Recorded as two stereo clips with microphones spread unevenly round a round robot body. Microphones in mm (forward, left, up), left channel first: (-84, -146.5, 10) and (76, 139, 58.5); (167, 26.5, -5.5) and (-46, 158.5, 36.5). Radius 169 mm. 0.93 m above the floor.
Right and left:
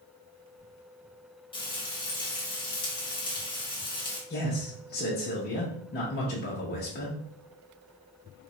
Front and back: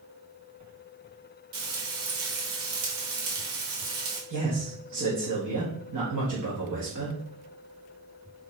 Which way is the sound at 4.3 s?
175° right.